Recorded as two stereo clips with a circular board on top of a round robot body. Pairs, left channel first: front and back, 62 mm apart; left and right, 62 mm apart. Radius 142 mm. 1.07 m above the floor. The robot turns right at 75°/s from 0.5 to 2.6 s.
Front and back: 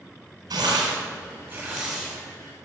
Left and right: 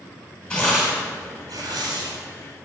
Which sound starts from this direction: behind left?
Tearing paper, at 0.5 s.